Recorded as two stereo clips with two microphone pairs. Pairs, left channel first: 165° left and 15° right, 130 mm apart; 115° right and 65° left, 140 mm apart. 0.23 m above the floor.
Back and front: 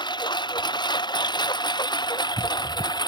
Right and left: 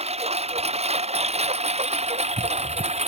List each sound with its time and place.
0.0 s a lawn mower: 110° left; by 3.1 s 105° left